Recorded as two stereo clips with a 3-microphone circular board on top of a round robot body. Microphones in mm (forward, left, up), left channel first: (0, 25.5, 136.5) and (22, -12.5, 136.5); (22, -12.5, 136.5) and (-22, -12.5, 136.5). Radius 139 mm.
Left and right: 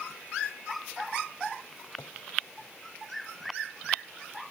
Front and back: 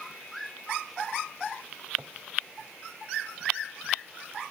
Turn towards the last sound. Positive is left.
turn(degrees=135)